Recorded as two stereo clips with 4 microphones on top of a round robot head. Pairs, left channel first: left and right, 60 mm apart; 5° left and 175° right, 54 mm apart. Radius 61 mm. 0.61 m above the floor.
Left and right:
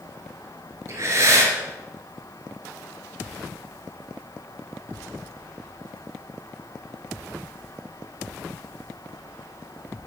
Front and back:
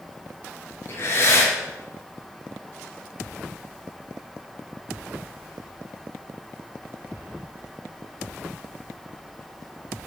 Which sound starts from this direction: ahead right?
Breathing, at 0.9 s.